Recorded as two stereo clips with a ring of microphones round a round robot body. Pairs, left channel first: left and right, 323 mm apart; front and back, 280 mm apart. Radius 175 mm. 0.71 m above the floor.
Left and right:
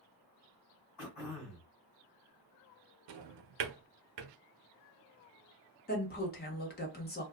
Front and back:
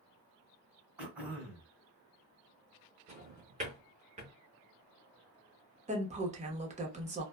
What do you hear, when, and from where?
1.0 s throat clearing: 95° left, 1.2 m
3.1 s a drawer: 110° right, 0.6 m
5.9 s a woman speaking: 130° left, 1.1 m